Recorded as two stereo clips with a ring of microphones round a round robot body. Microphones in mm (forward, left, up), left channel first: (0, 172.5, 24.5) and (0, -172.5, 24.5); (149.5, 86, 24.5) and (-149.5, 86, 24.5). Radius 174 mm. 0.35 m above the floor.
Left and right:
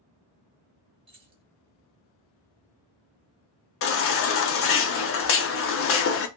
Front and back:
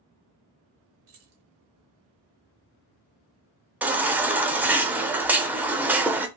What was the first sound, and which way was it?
Keys jangling, 165° right.